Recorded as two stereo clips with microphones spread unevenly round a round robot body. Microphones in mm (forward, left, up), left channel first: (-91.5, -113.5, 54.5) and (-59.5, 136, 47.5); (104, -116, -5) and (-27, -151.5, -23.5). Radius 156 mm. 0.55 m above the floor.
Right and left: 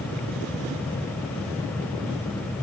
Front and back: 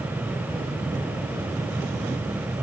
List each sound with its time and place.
Only background noise.